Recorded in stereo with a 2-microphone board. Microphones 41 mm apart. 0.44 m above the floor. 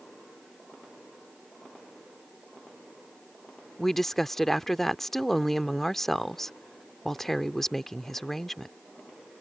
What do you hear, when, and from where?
3.8 s a woman speaking: 10° left (ahead or behind)